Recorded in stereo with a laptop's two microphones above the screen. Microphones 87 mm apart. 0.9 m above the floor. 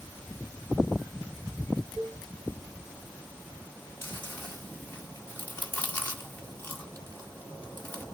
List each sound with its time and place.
2.0 s a cowbell: 10° left (ahead or behind), 0.7 m
4.0 s chewing: 25° left (ahead or behind), 1.8 m